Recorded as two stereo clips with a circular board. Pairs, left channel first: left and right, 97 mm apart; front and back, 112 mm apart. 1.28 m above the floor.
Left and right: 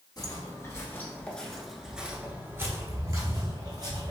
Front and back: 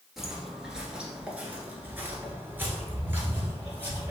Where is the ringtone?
I don't hear a ringtone.